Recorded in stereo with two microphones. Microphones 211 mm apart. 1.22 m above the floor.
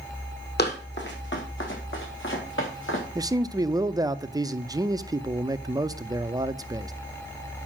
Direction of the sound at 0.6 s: 50° left (ahead or behind).